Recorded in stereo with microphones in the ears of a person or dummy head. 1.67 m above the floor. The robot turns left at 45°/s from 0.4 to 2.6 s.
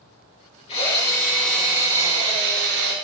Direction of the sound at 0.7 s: 35° left.